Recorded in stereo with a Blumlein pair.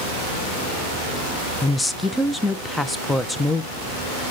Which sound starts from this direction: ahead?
A woman speaking, at 1.6 s.